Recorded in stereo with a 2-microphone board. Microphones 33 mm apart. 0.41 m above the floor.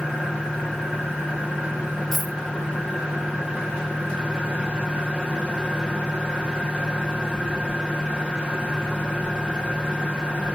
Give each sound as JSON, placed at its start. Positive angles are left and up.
{"t": 2.1, "sound": "a dropped coin", "side_deg": -5, "distance_m": 2.5}